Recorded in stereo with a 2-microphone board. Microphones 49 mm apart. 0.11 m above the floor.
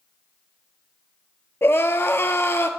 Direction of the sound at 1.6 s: 60° left (ahead or behind).